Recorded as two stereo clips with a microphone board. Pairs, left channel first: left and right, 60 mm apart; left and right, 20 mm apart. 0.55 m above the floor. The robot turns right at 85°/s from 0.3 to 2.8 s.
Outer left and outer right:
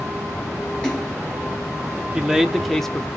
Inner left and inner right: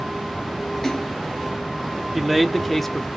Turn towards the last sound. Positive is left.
turn(degrees=5)  # may be behind; listen again after turning